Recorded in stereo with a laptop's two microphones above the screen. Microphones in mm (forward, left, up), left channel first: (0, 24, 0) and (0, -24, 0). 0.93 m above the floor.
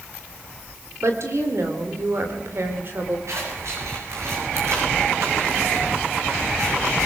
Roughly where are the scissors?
Right.